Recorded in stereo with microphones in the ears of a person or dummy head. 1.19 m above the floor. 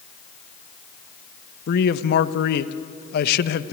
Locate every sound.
1.7 s a man speaking: 55° left (ahead or behind), 1.0 m